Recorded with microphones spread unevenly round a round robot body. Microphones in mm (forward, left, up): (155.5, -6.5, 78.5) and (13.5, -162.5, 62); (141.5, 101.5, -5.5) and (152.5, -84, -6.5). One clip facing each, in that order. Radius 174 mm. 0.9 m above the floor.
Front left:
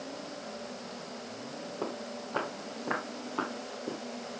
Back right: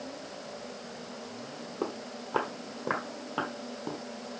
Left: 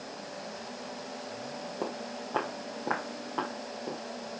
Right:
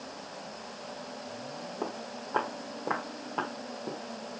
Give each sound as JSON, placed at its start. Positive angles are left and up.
{"t": 1.8, "sound": "footsteps", "azimuth_deg": 160, "distance_m": 1.7}